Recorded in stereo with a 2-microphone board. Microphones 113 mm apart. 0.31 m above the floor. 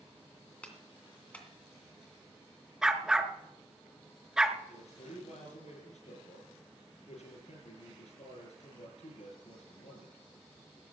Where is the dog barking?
5° right (ahead or behind), 1.0 m.